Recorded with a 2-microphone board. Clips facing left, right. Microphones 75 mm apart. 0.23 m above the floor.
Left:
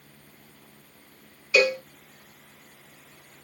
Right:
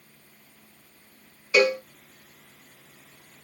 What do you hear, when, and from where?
1.5 s a cowbell: 30° right (ahead or behind), 1.2 m